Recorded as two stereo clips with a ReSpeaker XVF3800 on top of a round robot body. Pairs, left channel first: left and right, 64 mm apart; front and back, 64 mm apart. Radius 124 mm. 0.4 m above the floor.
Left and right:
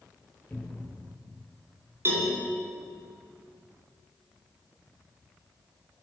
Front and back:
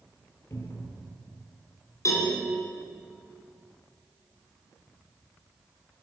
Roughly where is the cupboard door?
Ahead left.